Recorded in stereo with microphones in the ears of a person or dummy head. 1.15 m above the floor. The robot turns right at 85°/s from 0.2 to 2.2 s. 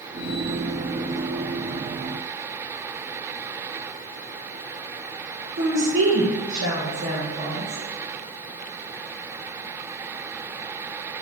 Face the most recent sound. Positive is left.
turn(degrees=-60)  # may be behind; listen again after turning